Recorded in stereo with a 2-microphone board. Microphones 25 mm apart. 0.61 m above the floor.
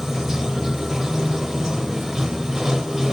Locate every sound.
0.0 s running water: 20° right (ahead or behind), 1.2 m